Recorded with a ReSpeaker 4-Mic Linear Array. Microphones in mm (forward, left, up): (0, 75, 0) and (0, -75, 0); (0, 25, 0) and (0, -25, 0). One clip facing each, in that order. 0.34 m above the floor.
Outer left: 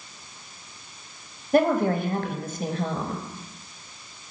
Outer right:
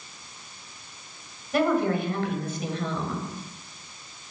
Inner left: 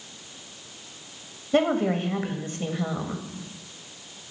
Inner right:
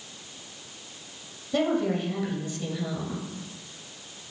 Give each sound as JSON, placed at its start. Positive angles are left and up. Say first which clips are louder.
{"t": 1.5, "sound": "a woman speaking", "louder": "outer left 3 dB, inner left 3 dB", "side_deg": 50, "distance_m": 1.3}